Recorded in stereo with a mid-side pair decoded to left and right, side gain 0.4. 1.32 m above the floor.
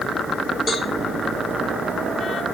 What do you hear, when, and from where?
0.7 s a cowbell: 45° left, 3.5 m